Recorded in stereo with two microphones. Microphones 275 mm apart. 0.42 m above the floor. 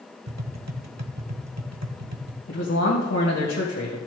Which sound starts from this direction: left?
A man speaking, at 2.5 s.